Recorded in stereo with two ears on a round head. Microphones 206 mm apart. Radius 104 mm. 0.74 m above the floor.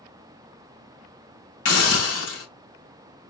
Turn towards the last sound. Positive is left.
turn(degrees=75)  # may be behind; listen again after turning